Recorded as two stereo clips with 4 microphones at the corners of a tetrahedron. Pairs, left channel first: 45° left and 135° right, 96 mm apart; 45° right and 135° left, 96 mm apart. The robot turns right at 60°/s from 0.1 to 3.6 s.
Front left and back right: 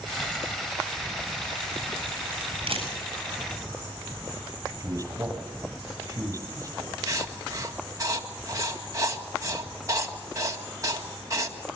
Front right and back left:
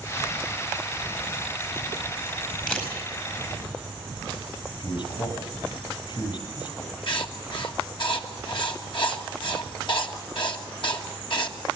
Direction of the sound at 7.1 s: 80° right.